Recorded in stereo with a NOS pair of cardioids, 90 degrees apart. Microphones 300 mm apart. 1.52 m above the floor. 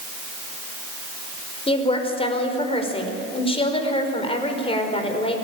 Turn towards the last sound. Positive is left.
turn(degrees=20)